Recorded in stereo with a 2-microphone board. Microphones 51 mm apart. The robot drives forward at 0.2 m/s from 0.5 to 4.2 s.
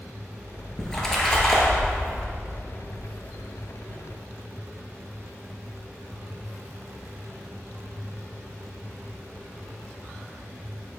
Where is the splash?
10° left (ahead or behind), 1.2 m.